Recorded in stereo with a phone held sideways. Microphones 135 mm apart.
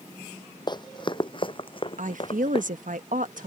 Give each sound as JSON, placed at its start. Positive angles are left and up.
{"t": 0.7, "sound": "running footsteps", "side_deg": 35}
{"t": 2.0, "sound": "a woman speaking", "side_deg": -80}